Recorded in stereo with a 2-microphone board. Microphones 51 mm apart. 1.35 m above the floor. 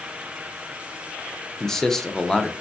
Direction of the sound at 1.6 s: 10° left (ahead or behind).